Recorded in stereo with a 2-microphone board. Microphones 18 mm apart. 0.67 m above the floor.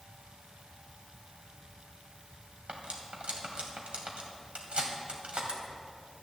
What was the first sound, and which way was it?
Cutlery clinking, 85° right.